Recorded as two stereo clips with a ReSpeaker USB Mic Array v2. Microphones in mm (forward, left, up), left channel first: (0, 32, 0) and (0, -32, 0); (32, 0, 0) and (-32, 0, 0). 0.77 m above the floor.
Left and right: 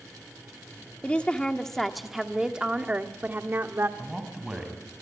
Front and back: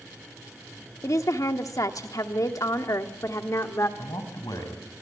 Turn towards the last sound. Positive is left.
turn(degrees=-10)